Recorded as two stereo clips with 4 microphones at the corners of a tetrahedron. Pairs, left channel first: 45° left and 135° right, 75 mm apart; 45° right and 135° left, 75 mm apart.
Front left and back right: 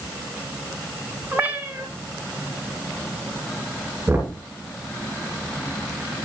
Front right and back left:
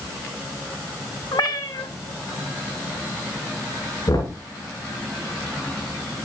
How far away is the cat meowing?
About 2 m.